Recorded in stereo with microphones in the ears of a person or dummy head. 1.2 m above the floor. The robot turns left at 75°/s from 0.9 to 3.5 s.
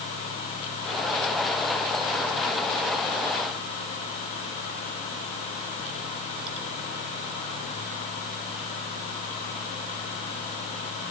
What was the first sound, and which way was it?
Only background noise.